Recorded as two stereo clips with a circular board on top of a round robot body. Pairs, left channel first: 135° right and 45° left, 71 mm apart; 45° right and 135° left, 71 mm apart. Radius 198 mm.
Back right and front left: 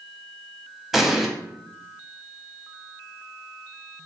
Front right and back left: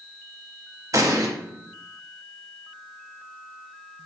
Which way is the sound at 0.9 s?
130° left.